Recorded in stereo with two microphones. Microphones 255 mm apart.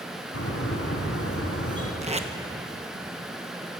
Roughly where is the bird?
Left.